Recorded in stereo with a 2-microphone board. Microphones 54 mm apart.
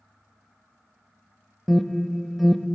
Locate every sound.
1.7 s an alarm: centre (ahead or behind), 0.5 m